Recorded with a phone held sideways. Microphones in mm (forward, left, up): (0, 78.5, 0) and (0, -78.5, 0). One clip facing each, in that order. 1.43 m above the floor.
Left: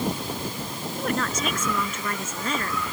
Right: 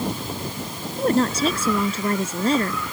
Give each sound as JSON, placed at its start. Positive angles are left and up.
{"t": 1.0, "sound": "a woman speaking", "side_deg": -35}